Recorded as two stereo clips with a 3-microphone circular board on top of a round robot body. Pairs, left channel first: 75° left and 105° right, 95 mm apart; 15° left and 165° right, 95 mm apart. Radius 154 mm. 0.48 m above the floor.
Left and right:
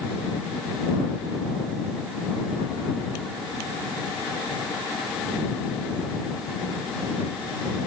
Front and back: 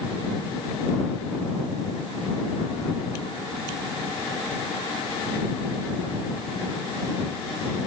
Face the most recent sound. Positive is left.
No sound to turn to.